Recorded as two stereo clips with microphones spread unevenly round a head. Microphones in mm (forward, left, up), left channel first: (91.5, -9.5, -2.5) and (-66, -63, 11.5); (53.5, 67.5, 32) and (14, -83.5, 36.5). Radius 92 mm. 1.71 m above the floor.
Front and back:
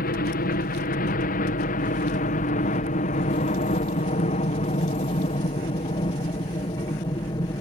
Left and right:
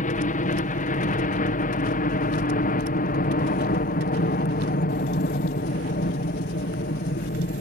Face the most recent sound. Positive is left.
turn(degrees=80)